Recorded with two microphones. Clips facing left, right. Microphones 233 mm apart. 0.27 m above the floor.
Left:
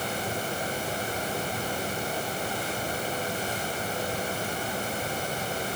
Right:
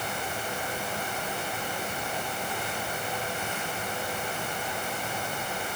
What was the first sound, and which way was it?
Only background noise.